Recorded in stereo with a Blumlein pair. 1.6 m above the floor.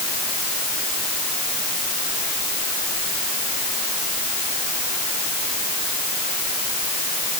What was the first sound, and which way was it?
Only background noise.